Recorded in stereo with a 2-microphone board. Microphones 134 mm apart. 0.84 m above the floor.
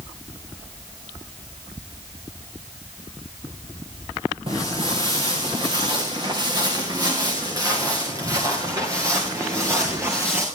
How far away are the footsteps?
About 5.5 m.